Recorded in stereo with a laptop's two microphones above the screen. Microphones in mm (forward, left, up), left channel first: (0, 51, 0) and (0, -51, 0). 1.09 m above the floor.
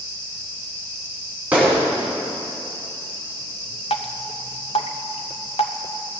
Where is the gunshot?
15° right (ahead or behind), 3.5 m.